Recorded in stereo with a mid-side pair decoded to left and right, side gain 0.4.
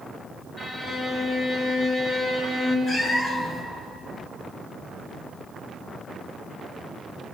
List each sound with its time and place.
0.6 s a violin: 45° left, 6.5 m
2.9 s a cat meowing: 50° left, 5 m